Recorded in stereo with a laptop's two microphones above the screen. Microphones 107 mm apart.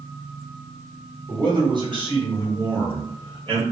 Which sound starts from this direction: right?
A man speaking, at 1.3 s.